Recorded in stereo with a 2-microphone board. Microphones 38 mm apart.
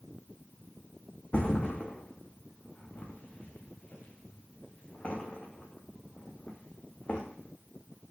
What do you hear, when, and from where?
1.3 s a thud: 45° left (ahead or behind), 3.5 m